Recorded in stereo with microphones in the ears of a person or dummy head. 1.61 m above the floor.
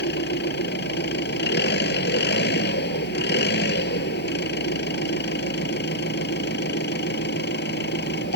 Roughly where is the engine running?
Left.